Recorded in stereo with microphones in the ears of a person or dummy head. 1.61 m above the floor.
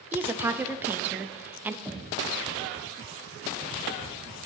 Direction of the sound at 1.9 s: 5° left (ahead or behind).